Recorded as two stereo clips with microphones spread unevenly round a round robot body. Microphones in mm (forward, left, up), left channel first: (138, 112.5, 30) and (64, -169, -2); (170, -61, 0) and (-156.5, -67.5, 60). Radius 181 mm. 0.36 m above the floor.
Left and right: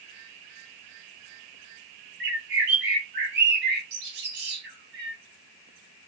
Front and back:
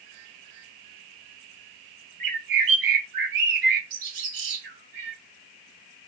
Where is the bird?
160° right, 2 m.